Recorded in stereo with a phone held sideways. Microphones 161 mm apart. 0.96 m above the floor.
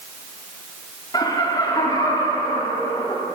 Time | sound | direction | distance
1.1 | laughter | 25° left (ahead or behind) | 2.5 m